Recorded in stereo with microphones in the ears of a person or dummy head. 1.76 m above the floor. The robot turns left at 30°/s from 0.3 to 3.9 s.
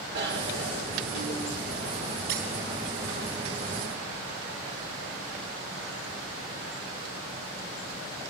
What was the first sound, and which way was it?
A bicycle bell, 55° right.